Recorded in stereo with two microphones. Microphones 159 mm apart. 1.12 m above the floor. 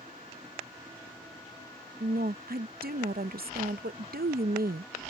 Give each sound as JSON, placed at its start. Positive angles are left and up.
{"t": 2.0, "sound": "a woman speaking", "side_deg": -70}